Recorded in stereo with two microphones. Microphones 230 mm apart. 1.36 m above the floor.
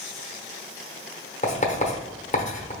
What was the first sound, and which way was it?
Writing, 30° left (ahead or behind).